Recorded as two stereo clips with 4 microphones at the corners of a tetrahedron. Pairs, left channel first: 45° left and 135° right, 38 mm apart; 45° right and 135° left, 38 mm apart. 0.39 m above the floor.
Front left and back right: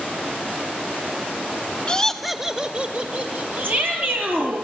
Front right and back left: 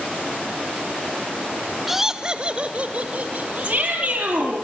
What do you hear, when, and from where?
1.9 s laughter: 60° left, 1.1 m; by 4.3 s 175° right, 3.5 m
3.6 s a shout: 170° right, 8.5 m